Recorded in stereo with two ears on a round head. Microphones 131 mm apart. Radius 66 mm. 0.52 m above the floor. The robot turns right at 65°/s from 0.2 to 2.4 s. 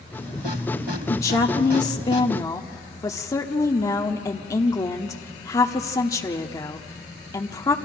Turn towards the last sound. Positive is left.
turn(degrees=25)  # may be behind; listen again after turning